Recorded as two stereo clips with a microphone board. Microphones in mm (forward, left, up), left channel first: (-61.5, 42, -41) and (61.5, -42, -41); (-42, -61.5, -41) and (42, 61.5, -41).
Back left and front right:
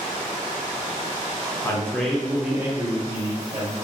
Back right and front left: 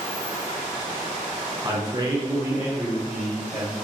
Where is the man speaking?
85° left, 1.1 m; by 3.8 s 40° right, 1.3 m.